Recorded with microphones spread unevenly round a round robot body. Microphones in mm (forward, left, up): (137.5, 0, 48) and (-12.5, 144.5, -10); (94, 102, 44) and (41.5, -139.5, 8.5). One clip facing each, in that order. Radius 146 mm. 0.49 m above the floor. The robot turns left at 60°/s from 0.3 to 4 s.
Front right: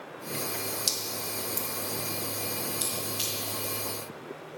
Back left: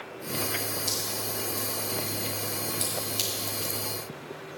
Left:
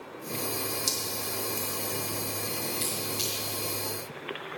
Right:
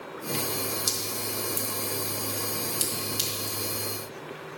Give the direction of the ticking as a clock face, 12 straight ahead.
I don't hear ticking.